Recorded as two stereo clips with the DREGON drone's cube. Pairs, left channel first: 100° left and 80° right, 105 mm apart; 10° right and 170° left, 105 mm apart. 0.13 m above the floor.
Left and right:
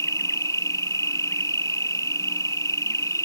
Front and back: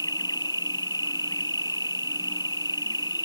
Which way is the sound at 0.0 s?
40° left.